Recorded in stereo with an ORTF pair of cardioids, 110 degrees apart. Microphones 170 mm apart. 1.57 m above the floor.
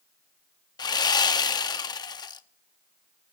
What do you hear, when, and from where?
0.8 s sawing: 25° left, 0.8 m